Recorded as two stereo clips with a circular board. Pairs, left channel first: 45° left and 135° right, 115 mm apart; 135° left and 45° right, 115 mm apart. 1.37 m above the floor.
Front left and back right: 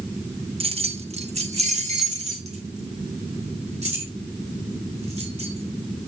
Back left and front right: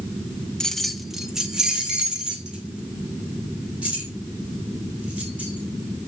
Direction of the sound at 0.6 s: 140° right.